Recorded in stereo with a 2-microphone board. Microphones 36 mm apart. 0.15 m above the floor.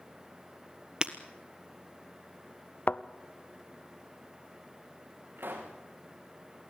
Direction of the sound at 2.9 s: 50° left (ahead or behind).